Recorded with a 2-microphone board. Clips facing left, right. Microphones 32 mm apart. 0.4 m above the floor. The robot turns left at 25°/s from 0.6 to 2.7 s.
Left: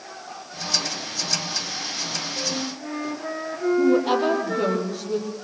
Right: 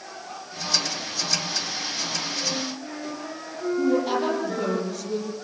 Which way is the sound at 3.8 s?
15° left (ahead or behind).